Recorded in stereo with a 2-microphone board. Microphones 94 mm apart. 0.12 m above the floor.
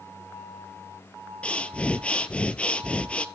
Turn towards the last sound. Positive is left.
turn(degrees=15)  # may be behind; listen again after turning